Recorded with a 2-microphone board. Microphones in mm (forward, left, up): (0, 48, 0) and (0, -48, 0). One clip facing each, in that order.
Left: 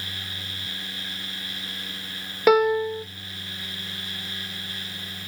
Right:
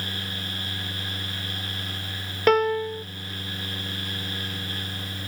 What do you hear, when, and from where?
2.5 s a piano: 5° left (ahead or behind), 0.6 m